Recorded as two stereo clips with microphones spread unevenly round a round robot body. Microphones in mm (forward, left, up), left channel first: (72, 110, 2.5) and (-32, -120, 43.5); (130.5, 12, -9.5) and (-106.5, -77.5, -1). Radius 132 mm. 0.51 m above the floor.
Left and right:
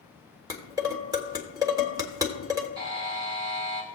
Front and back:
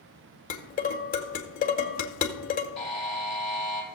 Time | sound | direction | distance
0.5 | dishes clattering | 35° right | 1.3 m
2.8 | a buzzer | 70° right | 3 m